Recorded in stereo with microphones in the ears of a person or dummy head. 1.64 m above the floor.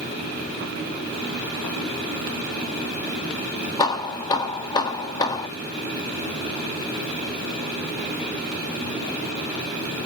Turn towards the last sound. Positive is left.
turn(degrees=25)  # may be behind; listen again after turning